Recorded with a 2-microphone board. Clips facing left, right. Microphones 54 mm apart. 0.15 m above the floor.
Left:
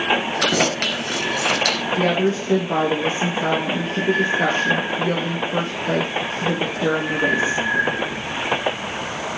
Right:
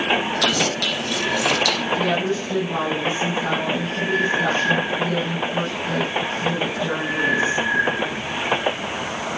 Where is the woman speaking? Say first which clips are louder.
Left 2 dB; 55° left (ahead or behind), 3 m.